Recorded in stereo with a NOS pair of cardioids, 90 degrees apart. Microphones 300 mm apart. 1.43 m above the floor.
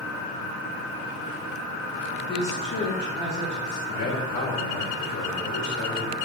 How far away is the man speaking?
About 3.5 m.